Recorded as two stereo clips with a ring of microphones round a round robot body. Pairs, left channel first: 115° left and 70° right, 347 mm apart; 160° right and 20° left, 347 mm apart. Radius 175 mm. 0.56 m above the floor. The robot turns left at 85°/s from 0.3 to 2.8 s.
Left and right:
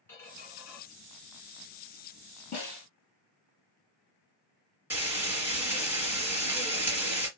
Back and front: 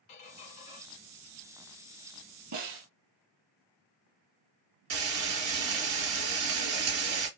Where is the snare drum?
40° left, 3 m; by 2.9 s 20° left, 3 m.